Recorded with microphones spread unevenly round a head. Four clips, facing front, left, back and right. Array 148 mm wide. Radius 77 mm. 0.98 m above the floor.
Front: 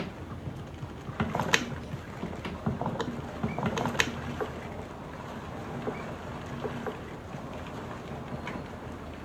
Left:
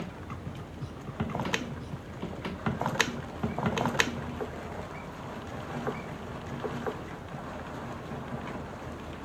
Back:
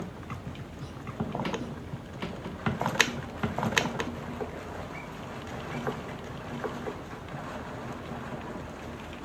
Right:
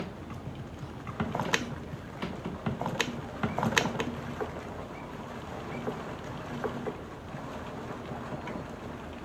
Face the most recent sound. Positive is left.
No sound to turn to.